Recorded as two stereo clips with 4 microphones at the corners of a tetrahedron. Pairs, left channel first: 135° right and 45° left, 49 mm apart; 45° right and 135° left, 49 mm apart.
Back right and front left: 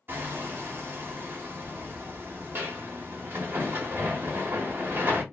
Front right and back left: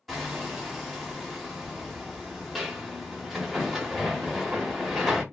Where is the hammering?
50° left, 1.0 m.